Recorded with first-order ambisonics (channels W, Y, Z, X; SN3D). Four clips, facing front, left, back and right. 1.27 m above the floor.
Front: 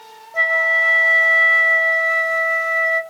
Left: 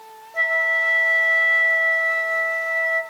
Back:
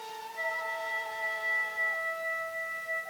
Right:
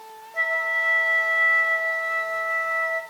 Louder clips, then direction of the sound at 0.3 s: Left 4 dB, front 19 dB; 10° left.